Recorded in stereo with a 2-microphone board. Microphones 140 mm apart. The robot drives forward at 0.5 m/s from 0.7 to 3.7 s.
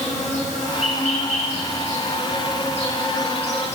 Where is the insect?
60° left (ahead or behind), 4 m; by 3.8 s 50° left (ahead or behind), 4.5 m.